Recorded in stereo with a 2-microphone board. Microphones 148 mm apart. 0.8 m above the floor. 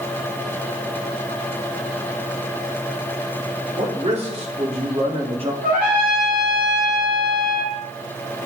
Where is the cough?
I don't hear a cough.